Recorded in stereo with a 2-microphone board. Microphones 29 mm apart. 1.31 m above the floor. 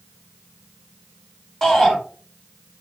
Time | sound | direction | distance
1.6 | a shout | 10° left (ahead or behind) | 3 m